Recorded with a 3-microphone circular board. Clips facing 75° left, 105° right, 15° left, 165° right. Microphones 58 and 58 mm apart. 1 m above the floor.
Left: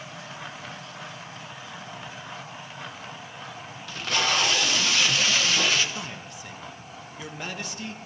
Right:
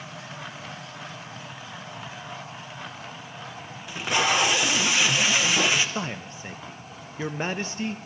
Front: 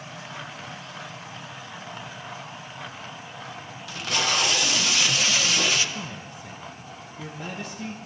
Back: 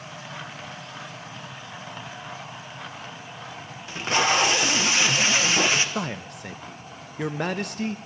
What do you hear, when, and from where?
3.9 s tape being pulled: 160° right, 0.9 m
6.0 s a man speaking: 155° right, 0.7 m